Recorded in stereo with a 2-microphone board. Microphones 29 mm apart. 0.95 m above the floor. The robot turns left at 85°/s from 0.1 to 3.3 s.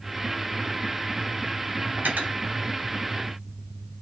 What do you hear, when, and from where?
2.0 s cutlery clinking: 90° right, 2.5 m; by 2.4 s 55° right (ahead or behind), 2.5 m